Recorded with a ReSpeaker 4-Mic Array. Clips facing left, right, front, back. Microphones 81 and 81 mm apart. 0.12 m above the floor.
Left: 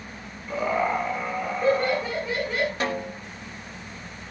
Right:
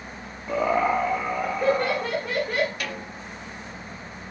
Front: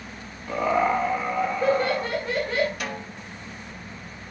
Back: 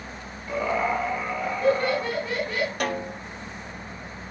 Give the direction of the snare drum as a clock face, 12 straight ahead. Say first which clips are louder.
Left 6 dB, back 5 dB; 7 o'clock.